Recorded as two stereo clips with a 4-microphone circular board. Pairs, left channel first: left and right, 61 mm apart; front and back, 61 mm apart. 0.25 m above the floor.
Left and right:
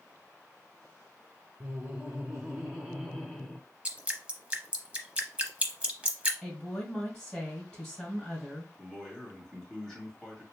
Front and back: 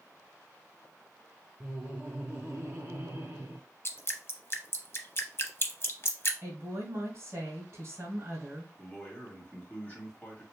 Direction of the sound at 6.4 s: 150° left.